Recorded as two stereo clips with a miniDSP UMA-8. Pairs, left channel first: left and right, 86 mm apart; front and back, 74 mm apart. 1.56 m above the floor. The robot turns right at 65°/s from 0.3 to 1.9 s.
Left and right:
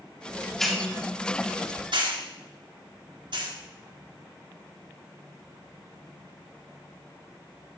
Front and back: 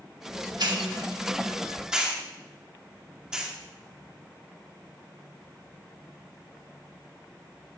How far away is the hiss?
About 2 m.